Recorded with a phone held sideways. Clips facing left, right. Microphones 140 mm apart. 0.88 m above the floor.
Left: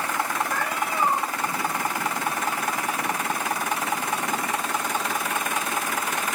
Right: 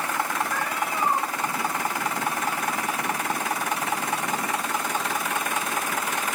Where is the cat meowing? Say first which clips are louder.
Left 1 dB; 50° left (ahead or behind), 8.5 m.